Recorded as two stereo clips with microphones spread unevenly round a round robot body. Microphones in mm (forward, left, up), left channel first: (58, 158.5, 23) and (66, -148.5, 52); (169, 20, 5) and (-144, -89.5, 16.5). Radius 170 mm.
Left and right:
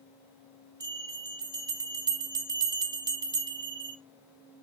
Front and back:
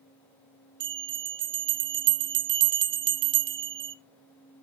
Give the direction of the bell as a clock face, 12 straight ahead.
6 o'clock.